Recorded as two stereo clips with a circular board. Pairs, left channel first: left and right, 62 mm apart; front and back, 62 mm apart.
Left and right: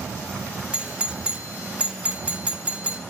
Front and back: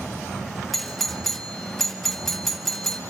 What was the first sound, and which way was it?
A doorbell, 80° right.